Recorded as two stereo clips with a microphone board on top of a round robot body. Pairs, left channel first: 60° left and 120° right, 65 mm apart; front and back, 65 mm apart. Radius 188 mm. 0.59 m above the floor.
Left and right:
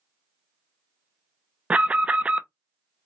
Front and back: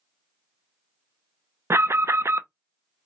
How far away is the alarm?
About 0.6 m.